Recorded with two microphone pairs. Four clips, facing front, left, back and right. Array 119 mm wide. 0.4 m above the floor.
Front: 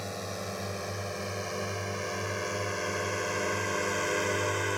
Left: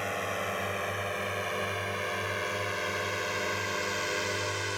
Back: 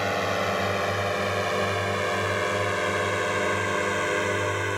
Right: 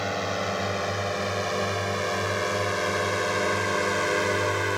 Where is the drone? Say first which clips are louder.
Right 5 dB, back 11 dB; 150° right; by 4.8 s 105° right.